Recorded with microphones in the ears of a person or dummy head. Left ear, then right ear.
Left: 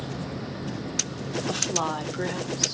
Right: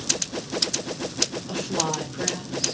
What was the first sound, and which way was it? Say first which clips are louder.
A woman speaking: even; 60° left (ahead or behind).